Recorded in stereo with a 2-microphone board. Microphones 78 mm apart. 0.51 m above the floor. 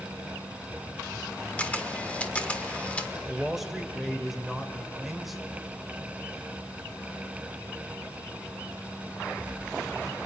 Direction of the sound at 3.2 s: 5° right (ahead or behind).